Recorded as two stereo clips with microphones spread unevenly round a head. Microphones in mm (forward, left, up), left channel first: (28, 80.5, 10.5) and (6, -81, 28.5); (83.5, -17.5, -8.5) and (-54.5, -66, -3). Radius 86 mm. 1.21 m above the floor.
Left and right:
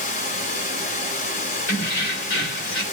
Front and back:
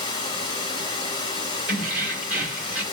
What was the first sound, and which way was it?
Running water, 65° left.